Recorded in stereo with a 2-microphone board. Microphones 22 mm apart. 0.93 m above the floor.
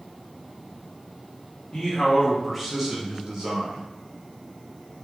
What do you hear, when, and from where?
1.7 s a man speaking: 25° left (ahead or behind), 0.8 m; by 3.9 s 50° right (ahead or behind), 1.2 m